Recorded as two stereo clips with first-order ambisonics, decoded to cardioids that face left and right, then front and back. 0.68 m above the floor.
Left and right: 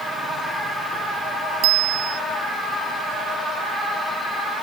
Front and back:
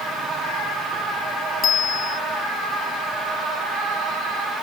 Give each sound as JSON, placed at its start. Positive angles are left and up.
{"t": 1.6, "sound": "a bicycle bell", "azimuth_deg": -60}